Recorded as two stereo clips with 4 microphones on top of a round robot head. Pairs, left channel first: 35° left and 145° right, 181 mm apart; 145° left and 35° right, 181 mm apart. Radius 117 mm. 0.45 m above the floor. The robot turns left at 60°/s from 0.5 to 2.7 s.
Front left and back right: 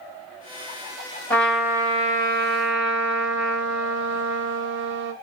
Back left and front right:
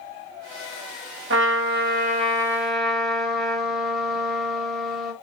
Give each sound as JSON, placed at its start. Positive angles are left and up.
{"t": 1.3, "sound": "a trumpet", "azimuth_deg": -45, "distance_m": 1.5}